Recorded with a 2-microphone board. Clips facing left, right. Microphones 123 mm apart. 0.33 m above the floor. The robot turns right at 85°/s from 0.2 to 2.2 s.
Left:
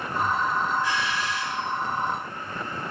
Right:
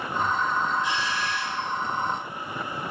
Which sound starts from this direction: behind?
A doorbell, at 0.8 s.